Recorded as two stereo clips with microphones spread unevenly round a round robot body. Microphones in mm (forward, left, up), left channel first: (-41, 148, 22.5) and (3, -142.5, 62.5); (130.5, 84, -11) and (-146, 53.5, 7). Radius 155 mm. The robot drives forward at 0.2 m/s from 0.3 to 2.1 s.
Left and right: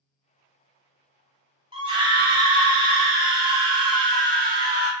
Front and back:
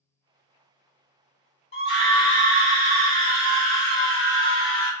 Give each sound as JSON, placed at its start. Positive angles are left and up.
{"t": 1.7, "sound": "a scream", "azimuth_deg": -10, "distance_m": 0.9}